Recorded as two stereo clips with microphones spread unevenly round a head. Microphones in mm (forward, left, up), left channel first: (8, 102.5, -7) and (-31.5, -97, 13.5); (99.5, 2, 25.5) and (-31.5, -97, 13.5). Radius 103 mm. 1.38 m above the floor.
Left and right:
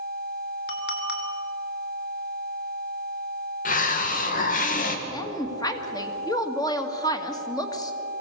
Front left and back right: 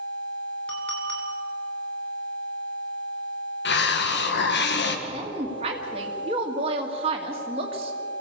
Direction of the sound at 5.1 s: 150° left.